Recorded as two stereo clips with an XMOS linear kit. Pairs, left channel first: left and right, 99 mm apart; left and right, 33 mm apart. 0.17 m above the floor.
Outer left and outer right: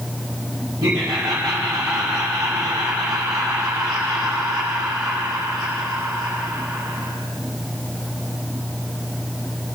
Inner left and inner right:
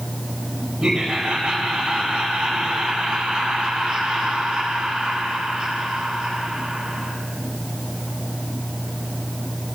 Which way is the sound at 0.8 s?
35° right (ahead or behind).